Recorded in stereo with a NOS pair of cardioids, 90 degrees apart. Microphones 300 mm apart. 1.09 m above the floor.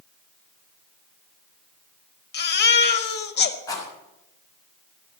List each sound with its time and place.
2.3 s a baby crying: 35° left, 1.7 m
3.7 s a rattle: 10° left, 5.5 m